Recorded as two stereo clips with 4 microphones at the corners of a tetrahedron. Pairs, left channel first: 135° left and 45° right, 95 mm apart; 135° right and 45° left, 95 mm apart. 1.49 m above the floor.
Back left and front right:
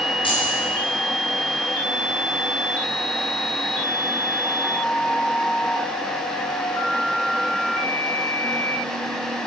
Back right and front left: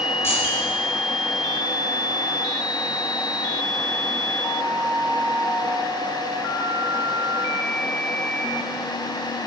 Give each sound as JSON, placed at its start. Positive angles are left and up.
{"t": 0.2, "sound": "keys jangling", "azimuth_deg": 165, "distance_m": 5.5}